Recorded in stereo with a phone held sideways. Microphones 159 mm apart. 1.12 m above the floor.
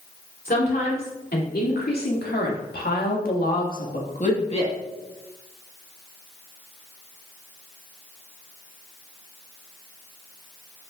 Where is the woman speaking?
70° left (ahead or behind), 3 m; by 4.8 s 35° left (ahead or behind), 1.6 m.